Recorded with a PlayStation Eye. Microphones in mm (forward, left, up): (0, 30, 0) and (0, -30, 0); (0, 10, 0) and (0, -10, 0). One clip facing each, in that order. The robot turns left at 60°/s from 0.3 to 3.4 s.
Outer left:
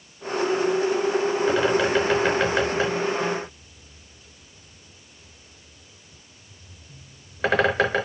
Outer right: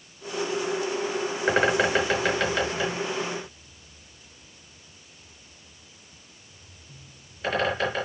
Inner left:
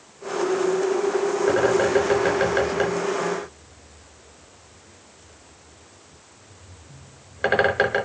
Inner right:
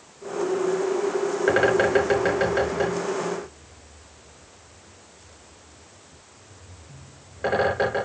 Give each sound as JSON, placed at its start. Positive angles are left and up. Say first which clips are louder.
{"t": 1.5, "sound": "a bird", "louder": "outer right 1 dB, inner right 1 dB", "side_deg": -45, "distance_m": 5.5}